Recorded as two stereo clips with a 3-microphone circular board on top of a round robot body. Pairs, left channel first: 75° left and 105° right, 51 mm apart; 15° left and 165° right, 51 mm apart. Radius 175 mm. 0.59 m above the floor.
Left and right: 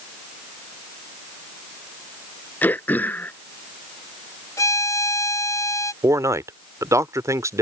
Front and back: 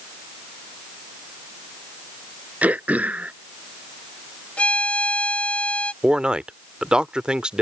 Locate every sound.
2.6 s throat clearing: 135° left
4.6 s a violin: 85° left
6.0 s a man speaking: 90° right